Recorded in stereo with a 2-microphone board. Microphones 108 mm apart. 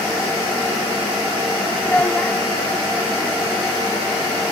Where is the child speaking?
15° left (ahead or behind).